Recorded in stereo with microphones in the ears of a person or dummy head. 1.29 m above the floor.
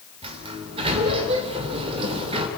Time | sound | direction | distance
0.2 | a sliding door | 30° right (ahead or behind) | 2.5 m